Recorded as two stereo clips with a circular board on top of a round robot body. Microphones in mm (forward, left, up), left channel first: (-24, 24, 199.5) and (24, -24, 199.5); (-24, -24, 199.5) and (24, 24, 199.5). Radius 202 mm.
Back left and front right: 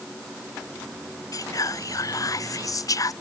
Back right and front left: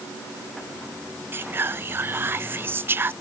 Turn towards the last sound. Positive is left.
turn(degrees=105)